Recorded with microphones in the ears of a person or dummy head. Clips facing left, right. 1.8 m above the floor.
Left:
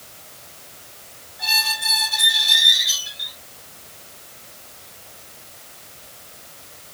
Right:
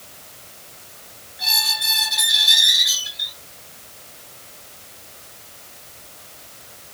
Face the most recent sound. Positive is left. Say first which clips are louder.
# left 2 dB
turn(degrees=-25)  # may be behind; listen again after turning